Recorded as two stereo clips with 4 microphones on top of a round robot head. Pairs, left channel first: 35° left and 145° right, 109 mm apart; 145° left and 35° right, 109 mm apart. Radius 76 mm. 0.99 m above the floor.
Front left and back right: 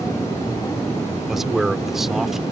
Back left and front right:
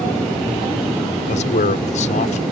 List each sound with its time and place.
1.3 s a man speaking: 130° left